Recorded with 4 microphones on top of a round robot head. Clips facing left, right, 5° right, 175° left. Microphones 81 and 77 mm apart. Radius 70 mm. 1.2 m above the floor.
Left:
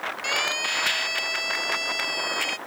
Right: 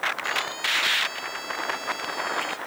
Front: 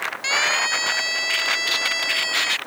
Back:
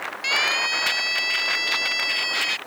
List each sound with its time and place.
0.2 s a siren: 50° left